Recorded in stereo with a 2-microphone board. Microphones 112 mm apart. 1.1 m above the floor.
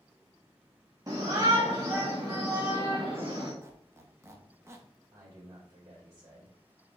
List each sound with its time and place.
1.1 s a shout: 30° right (ahead or behind), 0.8 m; by 3.5 s 25° right (ahead or behind), 2 m
3.6 s a squeak: 25° right (ahead or behind), 0.7 m
5.1 s a man speaking: 30° right (ahead or behind), 2.5 m